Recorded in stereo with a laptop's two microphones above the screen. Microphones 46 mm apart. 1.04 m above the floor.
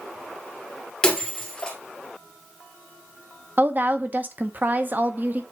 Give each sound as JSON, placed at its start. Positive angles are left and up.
{"t": 1.0, "sound": "breaking glass", "side_deg": 15, "distance_m": 1.8}
{"t": 3.6, "sound": "a woman speaking", "side_deg": -45, "distance_m": 0.9}